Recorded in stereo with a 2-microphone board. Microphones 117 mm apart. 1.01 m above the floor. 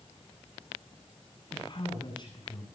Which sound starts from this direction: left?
A man speaking, at 1.5 s.